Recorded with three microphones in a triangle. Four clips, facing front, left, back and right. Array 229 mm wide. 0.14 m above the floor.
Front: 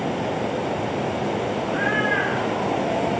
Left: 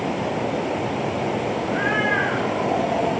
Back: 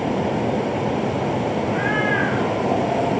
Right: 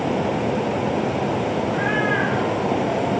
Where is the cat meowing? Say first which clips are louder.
Right 1 dB, back 2 dB; 130° left, 6.5 m; by 3.1 s 125° left, 6.5 m.